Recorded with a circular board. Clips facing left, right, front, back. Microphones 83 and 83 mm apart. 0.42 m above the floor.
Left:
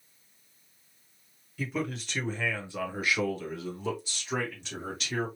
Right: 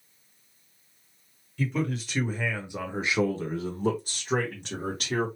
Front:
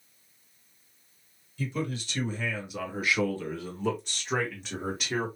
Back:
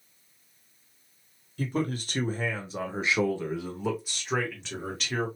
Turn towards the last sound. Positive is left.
turn(degrees=-75)